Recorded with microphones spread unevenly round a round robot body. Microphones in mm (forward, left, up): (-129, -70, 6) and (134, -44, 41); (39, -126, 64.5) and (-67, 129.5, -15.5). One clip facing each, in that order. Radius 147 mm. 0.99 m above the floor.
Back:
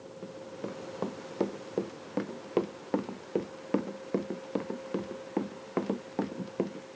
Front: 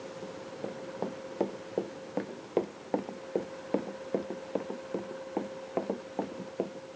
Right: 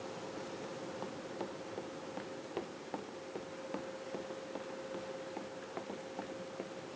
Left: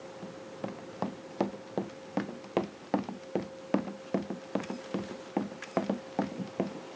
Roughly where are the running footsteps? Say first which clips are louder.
Back 2 dB, left 3 dB; left.